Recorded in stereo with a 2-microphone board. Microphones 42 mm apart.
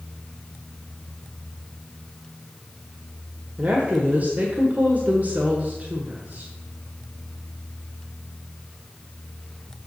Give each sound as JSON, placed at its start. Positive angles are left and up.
{"t": 3.6, "sound": "a woman speaking", "side_deg": -40, "distance_m": 1.4}